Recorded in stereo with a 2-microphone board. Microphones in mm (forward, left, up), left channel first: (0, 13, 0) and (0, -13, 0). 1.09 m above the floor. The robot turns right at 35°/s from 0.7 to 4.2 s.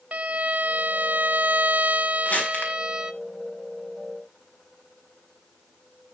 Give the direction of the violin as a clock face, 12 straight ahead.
4 o'clock.